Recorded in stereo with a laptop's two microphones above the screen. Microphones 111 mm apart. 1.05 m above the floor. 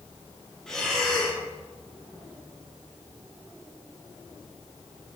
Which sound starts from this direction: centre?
Breathing, at 0.7 s.